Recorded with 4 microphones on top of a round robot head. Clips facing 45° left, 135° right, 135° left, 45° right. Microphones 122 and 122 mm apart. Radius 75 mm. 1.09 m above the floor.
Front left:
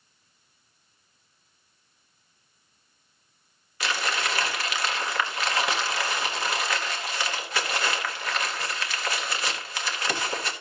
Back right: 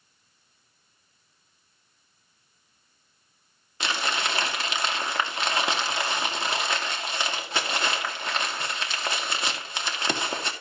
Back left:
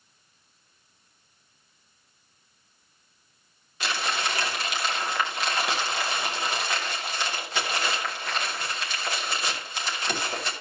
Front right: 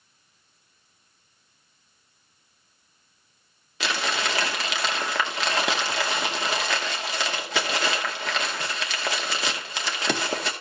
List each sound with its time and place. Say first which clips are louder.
3.8 s crumpling: even, front right 2 dB; 70° right, 2.0 m